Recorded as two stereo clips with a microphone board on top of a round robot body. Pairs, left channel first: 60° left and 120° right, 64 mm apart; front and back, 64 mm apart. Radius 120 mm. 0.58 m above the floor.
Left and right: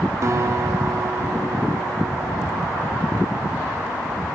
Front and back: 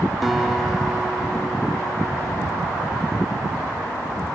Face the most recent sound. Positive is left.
turn(degrees=-90)